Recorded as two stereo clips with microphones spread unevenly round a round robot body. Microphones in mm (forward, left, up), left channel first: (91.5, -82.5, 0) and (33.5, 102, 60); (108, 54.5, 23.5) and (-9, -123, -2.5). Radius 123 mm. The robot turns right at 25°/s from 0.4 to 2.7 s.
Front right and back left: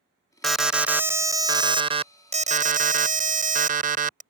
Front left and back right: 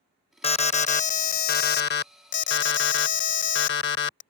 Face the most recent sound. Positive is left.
turn(degrees=55)